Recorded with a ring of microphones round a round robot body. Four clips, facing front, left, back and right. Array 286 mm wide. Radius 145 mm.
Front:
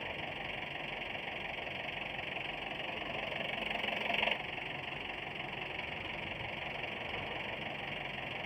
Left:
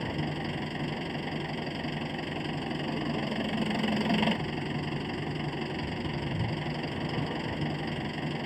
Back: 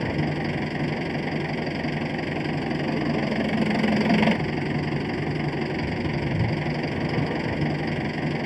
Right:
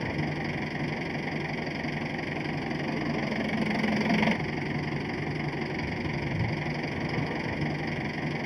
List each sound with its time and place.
0.0 s an engine running: 175° right